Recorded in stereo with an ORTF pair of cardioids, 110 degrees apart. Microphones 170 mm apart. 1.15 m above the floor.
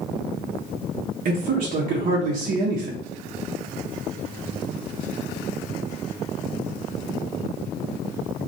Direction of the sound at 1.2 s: 50° right.